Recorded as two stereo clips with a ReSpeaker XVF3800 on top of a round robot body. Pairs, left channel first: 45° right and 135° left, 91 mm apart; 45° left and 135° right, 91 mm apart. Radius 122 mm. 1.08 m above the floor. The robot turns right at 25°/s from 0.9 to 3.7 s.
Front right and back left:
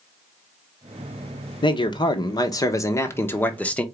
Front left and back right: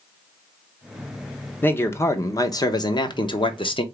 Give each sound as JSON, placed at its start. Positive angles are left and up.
{"t": 1.6, "sound": "a man speaking", "azimuth_deg": -25, "distance_m": 1.0}